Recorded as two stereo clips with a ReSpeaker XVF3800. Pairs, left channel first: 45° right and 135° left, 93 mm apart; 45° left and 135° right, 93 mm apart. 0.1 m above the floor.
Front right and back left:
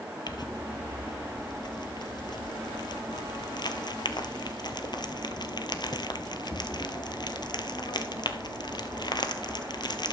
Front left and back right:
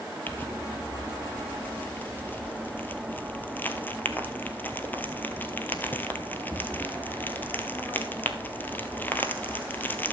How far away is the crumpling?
About 0.9 m.